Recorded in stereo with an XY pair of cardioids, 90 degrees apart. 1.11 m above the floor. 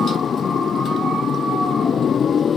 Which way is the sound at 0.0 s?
50° left.